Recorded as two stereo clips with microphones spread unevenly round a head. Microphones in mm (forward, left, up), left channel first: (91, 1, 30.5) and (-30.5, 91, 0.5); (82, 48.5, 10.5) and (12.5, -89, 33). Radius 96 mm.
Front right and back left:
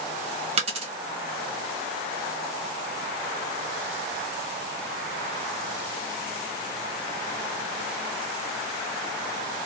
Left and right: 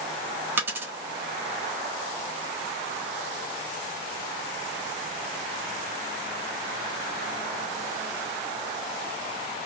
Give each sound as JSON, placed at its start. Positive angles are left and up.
{"t": 0.6, "sound": "a dropped coin", "azimuth_deg": -170, "distance_m": 0.8}